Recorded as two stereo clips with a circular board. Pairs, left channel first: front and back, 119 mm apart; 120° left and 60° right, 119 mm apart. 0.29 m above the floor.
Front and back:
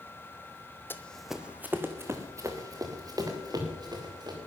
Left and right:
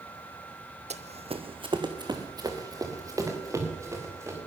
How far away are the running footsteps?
About 0.9 m.